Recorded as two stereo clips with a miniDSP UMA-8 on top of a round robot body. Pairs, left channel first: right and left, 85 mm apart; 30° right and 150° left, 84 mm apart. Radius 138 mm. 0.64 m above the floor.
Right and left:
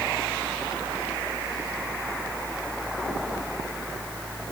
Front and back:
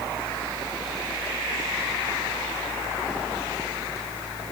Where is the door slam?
I don't hear a door slam.